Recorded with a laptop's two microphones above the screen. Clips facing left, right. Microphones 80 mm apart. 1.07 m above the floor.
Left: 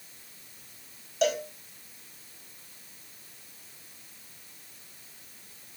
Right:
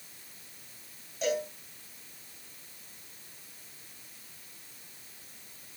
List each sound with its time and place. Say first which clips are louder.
1.2 s a cowbell: left 4 dB; 85° left, 3.5 m